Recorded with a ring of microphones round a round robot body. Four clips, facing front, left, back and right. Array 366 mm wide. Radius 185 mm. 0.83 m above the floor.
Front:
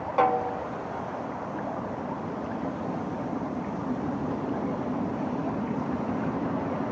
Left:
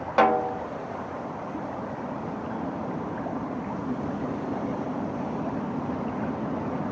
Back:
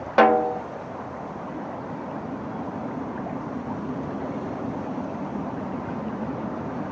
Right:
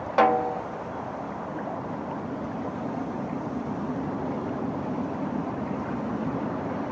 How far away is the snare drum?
About 0.7 m.